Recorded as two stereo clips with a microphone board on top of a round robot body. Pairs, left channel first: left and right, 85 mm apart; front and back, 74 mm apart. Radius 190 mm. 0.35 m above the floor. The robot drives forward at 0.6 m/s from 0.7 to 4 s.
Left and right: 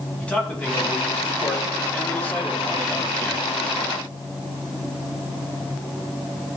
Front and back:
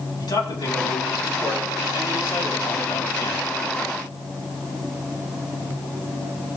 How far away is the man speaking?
About 4.5 m.